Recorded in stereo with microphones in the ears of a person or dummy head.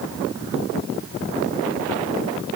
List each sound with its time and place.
Only background noise.